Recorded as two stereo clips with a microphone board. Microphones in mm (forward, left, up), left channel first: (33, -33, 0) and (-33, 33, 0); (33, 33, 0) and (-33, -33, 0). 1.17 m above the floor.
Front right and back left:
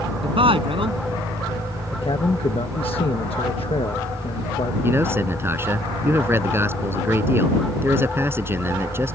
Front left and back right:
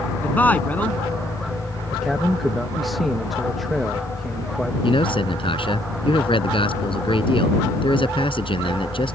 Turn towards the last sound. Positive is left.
turn(degrees=70)